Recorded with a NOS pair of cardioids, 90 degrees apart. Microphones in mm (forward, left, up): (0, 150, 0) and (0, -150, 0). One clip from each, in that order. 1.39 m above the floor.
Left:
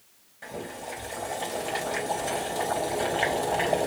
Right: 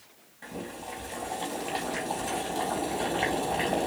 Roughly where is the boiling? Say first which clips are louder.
Left 2 dB; ahead.